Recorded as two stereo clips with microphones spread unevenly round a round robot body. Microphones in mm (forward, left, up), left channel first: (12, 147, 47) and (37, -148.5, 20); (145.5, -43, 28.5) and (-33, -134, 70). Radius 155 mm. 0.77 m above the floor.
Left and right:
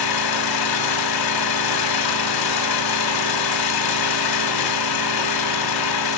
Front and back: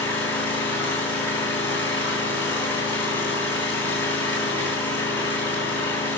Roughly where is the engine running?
Left.